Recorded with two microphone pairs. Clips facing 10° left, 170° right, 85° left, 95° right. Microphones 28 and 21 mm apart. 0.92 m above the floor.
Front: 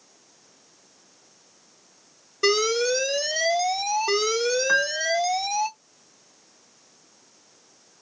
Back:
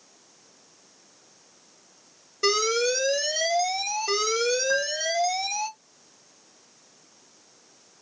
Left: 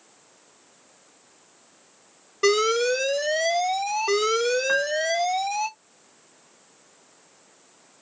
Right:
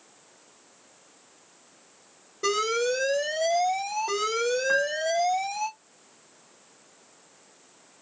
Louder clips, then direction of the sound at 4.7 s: Front 3 dB, left 2 dB; 20° left.